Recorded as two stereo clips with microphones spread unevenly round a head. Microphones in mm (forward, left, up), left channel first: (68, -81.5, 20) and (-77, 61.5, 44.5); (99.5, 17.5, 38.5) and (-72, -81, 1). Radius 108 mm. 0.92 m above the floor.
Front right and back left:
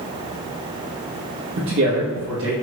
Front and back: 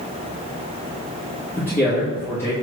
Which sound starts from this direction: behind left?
A man speaking, at 1.6 s.